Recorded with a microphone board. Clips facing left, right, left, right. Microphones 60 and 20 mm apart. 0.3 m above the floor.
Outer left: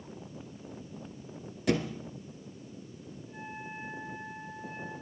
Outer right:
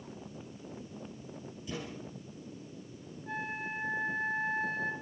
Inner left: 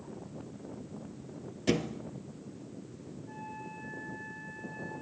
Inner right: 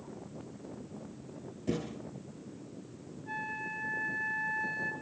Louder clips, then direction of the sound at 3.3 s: Outer right 7 dB, inner right 8 dB; 75° right (ahead or behind).